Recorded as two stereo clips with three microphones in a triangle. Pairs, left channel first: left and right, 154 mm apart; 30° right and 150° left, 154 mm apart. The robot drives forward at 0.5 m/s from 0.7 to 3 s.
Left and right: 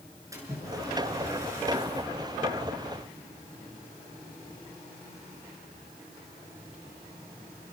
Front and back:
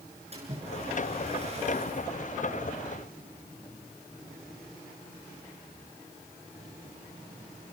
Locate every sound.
0.3 s a splash: 160° right, 8 m; by 2.1 s 165° right, 8.5 m